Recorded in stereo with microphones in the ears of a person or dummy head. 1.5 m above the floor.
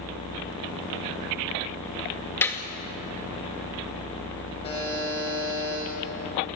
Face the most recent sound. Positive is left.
turn(degrees=25)  # may be behind; listen again after turning